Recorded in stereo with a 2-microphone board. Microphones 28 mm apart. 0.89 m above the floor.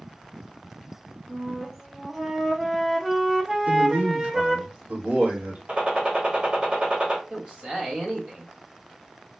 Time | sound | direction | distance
1.3 | a flute | 10° right (ahead or behind) | 0.6 m
3.7 | a man speaking | 65° right (ahead or behind) | 1.4 m
5.7 | a gunshot | 45° right (ahead or behind) | 1.2 m
7.3 | a man speaking | 55° right (ahead or behind) | 1.2 m